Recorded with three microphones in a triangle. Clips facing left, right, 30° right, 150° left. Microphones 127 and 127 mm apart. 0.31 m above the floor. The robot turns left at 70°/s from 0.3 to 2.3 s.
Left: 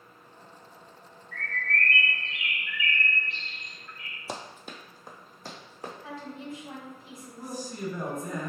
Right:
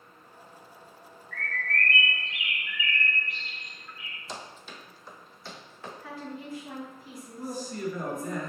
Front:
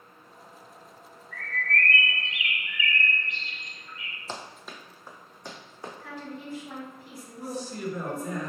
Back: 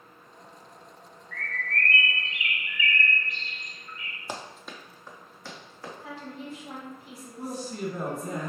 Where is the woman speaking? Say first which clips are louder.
Right 3 dB, even; 125° left, 1.4 m.